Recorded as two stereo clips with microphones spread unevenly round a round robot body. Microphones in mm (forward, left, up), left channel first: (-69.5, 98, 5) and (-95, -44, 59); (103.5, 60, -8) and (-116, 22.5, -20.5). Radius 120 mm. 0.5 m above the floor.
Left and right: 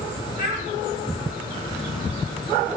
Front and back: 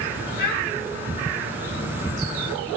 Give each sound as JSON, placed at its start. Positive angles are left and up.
{"t": 0.4, "sound": "a child speaking", "azimuth_deg": 55, "distance_m": 3.5}